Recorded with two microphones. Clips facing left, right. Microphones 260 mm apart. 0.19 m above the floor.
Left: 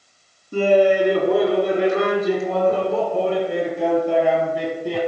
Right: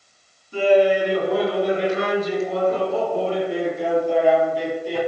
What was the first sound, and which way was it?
Laughter, 50° left (ahead or behind).